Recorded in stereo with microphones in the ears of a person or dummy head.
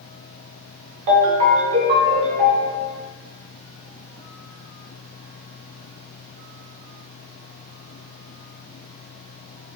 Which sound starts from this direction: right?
A ringtone, at 1.1 s.